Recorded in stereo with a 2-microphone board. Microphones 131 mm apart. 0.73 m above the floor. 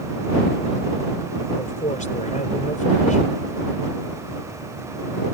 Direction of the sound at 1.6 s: 70° left (ahead or behind).